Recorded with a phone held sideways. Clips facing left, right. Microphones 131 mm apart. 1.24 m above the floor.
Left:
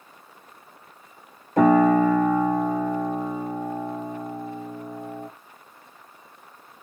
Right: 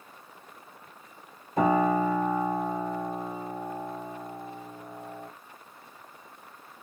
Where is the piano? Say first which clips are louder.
Left 7 dB; 75° left (ahead or behind), 1.3 m.